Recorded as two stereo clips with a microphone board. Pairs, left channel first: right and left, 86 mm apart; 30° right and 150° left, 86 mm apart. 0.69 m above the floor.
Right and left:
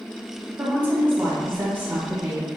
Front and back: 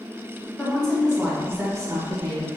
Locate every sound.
0.6 s a woman speaking: 35° left, 1.1 m; by 2.5 s 155° left, 1.5 m